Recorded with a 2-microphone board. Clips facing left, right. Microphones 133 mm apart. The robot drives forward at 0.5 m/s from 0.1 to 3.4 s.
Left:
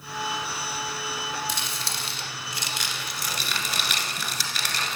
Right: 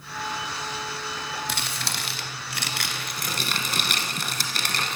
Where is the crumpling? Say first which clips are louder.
Right 1 dB; 60° right (ahead or behind), 1.0 m; by 5.0 s 45° right (ahead or behind), 1.2 m.